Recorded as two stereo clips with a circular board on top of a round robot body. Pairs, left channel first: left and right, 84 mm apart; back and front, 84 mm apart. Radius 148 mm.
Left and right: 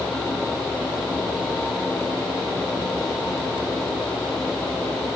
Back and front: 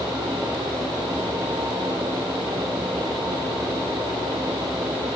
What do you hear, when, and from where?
Only background noise.